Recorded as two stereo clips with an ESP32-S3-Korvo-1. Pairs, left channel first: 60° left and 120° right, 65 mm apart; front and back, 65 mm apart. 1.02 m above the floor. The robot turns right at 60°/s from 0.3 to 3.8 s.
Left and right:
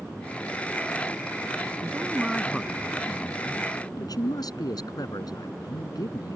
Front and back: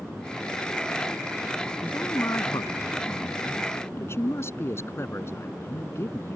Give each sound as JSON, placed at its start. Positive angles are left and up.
{"t": 1.8, "sound": "a man speaking", "azimuth_deg": -70}